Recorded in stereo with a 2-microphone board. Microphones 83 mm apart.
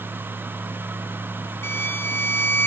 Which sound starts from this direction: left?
A violin, at 1.6 s.